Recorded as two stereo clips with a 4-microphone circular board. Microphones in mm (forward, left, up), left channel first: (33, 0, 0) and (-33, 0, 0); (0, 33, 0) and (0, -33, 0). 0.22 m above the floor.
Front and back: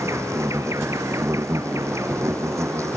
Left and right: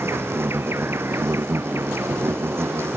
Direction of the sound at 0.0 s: 140° right.